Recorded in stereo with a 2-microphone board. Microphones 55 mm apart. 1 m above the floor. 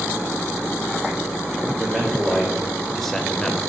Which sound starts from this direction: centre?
A man speaking, at 1.8 s.